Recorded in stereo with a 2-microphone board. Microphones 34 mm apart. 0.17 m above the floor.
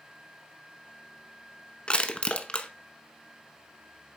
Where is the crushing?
30° left (ahead or behind), 0.8 m.